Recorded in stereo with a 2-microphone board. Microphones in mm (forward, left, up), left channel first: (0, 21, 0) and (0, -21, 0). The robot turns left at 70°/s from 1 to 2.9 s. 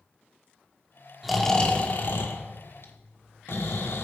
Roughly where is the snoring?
Behind.